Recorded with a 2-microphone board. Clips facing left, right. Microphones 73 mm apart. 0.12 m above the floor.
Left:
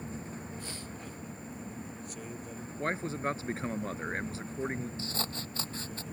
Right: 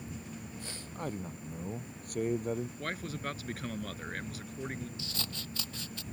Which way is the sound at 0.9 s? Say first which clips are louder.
Right 5 dB; 55° right (ahead or behind).